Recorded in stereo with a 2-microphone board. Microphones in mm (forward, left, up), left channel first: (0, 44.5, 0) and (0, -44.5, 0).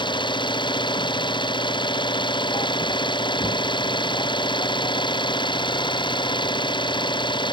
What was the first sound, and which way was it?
An engine running, 60° left (ahead or behind).